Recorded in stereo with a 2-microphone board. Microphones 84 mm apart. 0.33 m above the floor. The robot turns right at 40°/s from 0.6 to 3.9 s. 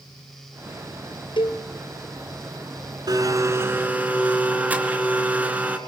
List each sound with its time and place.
1.4 s a cowbell: 75° left (ahead or behind), 2 m; by 1.6 s 85° left, 2 m
3.1 s a blender: 55° right, 3.5 m; by 5.8 s 20° right, 3.5 m